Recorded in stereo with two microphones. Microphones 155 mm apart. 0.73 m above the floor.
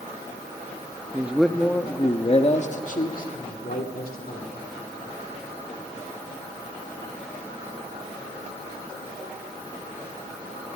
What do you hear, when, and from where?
1.1 s a man speaking: 15° right (ahead or behind), 1.1 m; by 4.7 s 75° left (ahead or behind), 2.5 m